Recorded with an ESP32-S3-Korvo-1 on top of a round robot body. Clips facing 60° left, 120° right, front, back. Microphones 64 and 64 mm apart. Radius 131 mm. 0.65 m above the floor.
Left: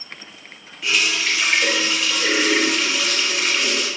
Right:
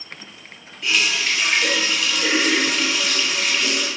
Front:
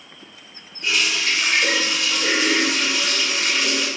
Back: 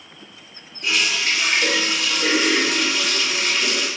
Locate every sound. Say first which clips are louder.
0.8 s a running tap: even, even; 140° left, 1.2 m